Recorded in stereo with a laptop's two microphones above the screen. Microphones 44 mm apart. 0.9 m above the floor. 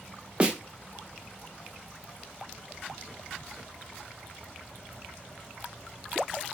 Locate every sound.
0.4 s a snare drum: 25° right (ahead or behind), 0.5 m